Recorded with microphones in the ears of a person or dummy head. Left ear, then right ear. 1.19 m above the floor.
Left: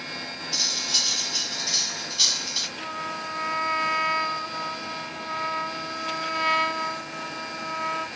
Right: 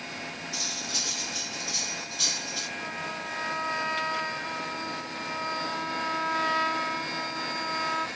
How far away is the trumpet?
About 1.4 m.